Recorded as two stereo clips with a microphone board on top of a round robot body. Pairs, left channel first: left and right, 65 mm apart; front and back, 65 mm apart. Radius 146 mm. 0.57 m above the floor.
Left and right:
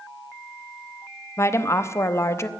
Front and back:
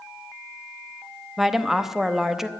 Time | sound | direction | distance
1.4 | a woman speaking | 95° left | 0.9 m